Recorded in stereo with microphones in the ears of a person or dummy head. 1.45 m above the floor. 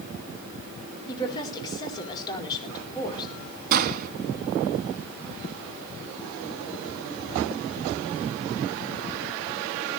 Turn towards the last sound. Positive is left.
turn(degrees=-45)  # may be behind; listen again after turning